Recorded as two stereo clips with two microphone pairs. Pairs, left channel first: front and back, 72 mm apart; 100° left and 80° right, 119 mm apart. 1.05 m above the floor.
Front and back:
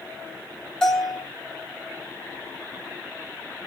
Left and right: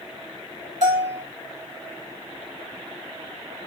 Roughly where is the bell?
Right.